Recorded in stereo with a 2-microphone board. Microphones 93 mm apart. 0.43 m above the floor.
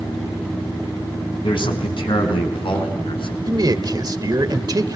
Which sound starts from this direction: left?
A man speaking, at 1.4 s.